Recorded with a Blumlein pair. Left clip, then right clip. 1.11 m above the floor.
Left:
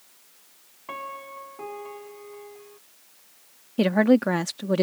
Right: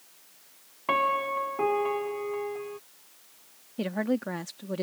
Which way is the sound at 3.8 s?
65° left.